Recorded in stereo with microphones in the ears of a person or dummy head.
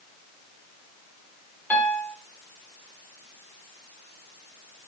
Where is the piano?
10° left (ahead or behind), 1.5 m.